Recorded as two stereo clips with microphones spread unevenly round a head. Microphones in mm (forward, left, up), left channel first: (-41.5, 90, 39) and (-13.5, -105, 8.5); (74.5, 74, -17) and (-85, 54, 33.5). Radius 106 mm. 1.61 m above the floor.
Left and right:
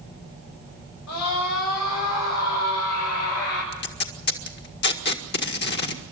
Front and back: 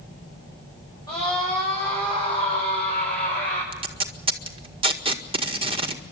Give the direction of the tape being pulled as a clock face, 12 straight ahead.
8 o'clock.